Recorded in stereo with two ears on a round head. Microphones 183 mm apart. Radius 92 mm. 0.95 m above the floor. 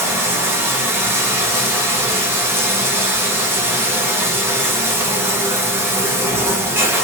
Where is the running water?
10° right (ahead or behind), 0.9 m.